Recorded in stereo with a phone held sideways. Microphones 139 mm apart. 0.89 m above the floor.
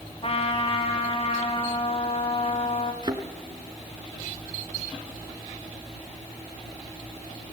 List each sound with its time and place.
0.2 s a trumpet: 45° left (ahead or behind), 2.5 m
3.0 s a thud: 30° right (ahead or behind), 2.5 m